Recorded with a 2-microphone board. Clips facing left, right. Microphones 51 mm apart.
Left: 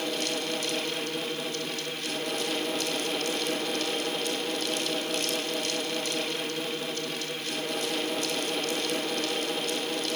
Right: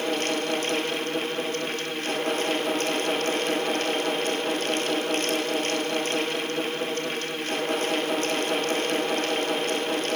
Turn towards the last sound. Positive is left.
No sound to turn to.